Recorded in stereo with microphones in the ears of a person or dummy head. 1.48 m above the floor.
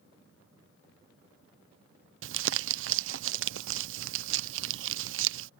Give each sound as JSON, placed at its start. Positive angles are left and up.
{"t": 2.2, "sound": "crumpling", "side_deg": -60}